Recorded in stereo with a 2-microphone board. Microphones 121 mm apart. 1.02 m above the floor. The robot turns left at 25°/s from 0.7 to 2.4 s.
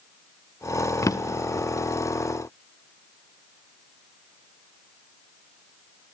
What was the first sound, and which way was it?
A drawer, 30° left (ahead or behind).